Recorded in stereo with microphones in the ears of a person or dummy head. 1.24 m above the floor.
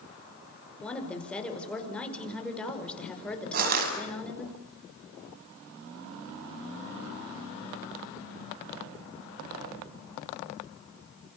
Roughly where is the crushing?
Right.